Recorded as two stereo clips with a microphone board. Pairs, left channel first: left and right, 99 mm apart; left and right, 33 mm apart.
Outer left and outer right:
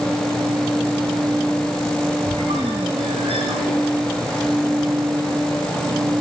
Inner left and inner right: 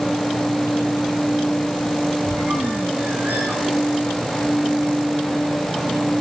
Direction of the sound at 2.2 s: 85° right.